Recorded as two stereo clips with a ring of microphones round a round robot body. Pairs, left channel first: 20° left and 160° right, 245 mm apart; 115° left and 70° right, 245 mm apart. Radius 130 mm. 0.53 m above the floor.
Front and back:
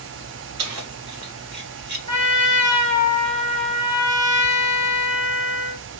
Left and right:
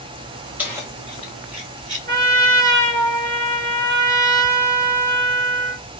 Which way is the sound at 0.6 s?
150° right.